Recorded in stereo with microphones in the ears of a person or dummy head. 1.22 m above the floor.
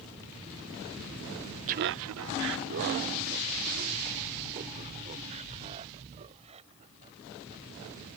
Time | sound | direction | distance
1.7 | laughter | 40° right (ahead or behind) | ?